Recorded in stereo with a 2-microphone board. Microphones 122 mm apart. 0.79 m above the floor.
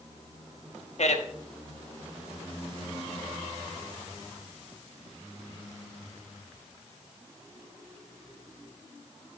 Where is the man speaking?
65° left (ahead or behind), 1.0 m.